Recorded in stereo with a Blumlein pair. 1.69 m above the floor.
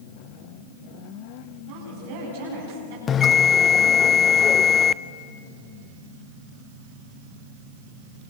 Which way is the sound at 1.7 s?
55° right.